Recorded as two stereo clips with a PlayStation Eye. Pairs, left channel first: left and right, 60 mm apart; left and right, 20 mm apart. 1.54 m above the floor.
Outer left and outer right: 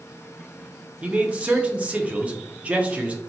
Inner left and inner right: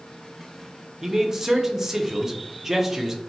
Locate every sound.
1.0 s a man speaking: 20° right (ahead or behind), 0.5 m